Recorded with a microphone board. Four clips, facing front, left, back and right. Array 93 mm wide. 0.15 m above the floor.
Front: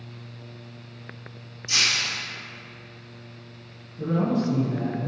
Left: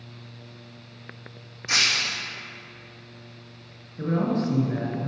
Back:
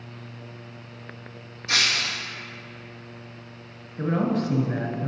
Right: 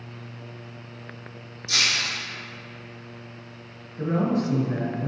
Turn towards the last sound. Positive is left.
turn(degrees=-175)